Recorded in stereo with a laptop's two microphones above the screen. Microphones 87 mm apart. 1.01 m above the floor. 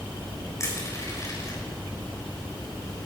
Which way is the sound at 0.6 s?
35° left (ahead or behind).